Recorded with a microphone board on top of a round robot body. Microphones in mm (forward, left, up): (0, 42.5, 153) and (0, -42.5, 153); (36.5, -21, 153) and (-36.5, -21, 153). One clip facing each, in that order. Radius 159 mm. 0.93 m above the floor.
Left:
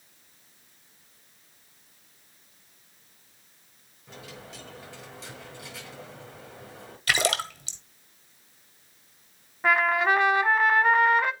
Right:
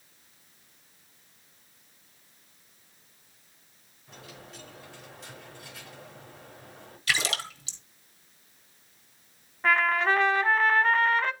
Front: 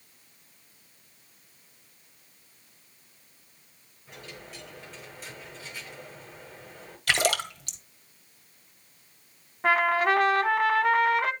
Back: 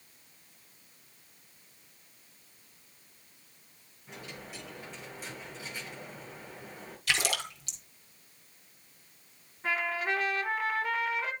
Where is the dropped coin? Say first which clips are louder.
Left 3 dB, even; 95° left, 8 m.